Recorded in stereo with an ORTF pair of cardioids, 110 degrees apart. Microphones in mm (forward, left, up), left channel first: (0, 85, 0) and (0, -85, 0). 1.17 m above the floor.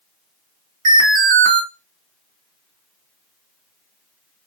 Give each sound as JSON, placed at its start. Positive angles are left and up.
{"t": 0.8, "sound": "an alarm", "azimuth_deg": -50, "distance_m": 1.8}